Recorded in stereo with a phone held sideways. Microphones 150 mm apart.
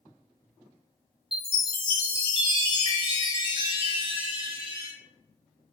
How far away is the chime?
About 1.0 m.